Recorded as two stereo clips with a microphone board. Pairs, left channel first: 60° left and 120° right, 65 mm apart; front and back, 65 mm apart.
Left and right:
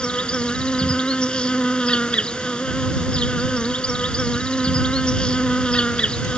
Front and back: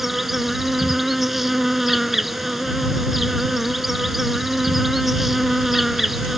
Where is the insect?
100° left.